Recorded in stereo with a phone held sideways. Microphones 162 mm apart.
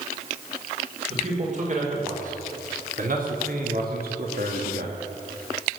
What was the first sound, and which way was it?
A man speaking, 50° right (ahead or behind).